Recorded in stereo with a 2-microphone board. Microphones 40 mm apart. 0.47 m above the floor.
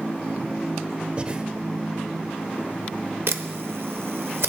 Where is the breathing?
25° right (ahead or behind), 0.7 m.